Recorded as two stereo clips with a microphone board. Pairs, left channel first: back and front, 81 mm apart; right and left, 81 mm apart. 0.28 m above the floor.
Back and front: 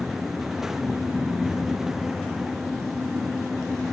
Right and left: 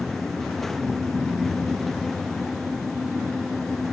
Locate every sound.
Only background noise.